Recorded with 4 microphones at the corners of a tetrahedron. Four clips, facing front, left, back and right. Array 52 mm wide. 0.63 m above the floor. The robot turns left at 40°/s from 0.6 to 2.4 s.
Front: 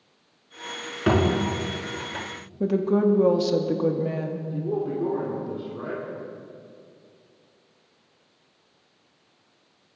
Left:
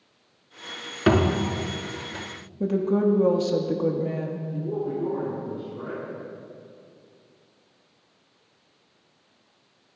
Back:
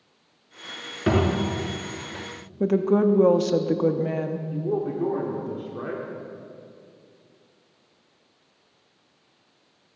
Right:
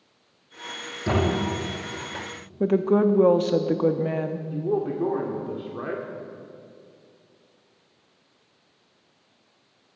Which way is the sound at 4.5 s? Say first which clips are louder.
Right 4 dB, even; 110° right.